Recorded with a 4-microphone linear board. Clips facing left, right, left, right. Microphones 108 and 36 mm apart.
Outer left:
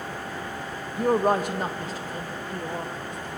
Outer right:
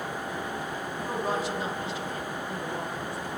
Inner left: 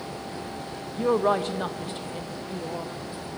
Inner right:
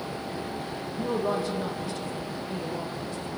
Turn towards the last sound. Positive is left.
turn(degrees=20)  # may be behind; listen again after turning